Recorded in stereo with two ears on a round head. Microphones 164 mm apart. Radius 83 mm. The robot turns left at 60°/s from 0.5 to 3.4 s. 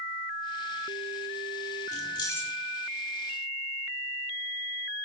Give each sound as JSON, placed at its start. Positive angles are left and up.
{"t": 1.9, "sound": "keys jangling", "side_deg": 40, "distance_m": 1.4}